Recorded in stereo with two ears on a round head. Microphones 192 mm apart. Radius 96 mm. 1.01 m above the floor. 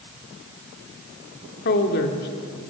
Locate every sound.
1.6 s a woman speaking: 50° left (ahead or behind), 3 m